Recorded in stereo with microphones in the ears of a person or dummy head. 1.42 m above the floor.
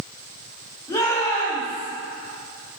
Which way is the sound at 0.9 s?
20° left (ahead or behind).